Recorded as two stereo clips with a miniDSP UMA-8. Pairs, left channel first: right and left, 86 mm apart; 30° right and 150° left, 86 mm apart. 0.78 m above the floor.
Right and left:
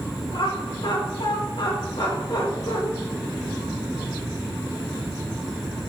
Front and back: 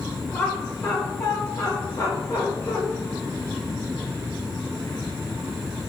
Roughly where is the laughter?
Right.